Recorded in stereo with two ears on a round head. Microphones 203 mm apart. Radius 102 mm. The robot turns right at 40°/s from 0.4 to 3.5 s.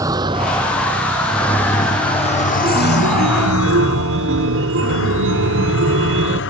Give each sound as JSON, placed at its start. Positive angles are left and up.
{"t": 0.0, "sound": "a vehicle", "side_deg": -15}
{"t": 2.6, "sound": "a chime", "azimuth_deg": -155}